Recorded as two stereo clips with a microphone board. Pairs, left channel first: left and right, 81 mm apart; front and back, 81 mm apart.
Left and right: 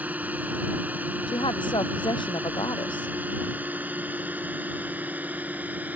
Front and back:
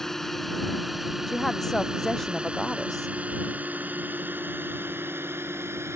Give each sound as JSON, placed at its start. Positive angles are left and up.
{"t": 0.0, "sound": "a drone", "azimuth_deg": -75}
{"t": 1.3, "sound": "a woman speaking", "azimuth_deg": 85}